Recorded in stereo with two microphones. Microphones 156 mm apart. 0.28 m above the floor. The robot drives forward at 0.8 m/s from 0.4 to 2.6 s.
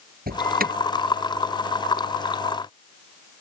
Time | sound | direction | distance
0.3 | an alarm | 75° right (ahead or behind) | ?